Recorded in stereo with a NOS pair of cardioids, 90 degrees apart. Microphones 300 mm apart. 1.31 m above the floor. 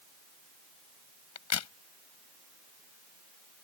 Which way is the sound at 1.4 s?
60° left.